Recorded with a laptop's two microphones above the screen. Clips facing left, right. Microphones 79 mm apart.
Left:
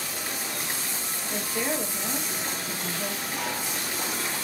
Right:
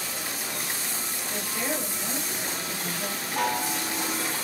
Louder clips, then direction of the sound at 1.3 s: Left 2 dB; 15° left (ahead or behind).